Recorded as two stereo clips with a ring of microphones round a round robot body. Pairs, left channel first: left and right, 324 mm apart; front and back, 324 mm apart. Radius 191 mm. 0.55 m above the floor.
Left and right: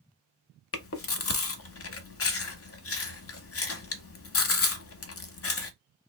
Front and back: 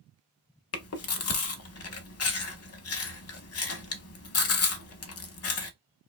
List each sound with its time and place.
0.7 s chewing: 45° left, 0.8 m